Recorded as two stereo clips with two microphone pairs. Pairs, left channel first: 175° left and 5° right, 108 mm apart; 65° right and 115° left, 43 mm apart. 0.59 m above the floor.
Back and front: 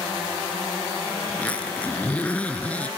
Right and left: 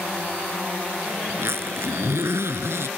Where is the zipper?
95° left.